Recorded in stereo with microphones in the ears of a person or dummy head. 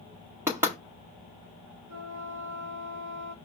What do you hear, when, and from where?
0.5 s knocking: 5° right (ahead or behind), 1.2 m
1.9 s a flute: 50° right (ahead or behind), 0.6 m